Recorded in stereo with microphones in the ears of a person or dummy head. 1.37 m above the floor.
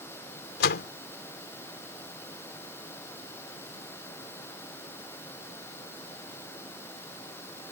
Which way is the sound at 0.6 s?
70° left (ahead or behind).